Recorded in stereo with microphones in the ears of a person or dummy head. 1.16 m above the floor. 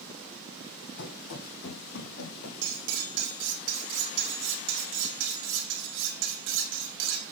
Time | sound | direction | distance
1.0 | running footsteps | 65° left (ahead or behind) | 2.5 m
2.6 | cutlery clinking | 65° right (ahead or behind) | 2 m